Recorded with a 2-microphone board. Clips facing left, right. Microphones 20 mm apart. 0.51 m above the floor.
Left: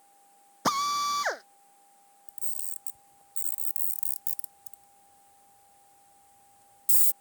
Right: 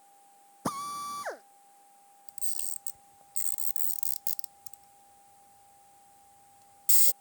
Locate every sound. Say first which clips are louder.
0.7 s a drill: left 8 dB; 65° left (ahead or behind)
2.3 s a camera shutter: right 3 dB; 45° right (ahead or behind)